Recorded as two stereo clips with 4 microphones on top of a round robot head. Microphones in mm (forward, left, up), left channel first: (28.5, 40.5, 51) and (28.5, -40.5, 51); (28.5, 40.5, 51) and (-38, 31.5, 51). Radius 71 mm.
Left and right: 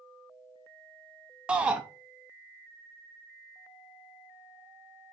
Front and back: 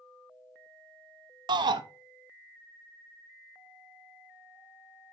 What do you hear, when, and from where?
1.5 s a shout: 170° right, 0.7 m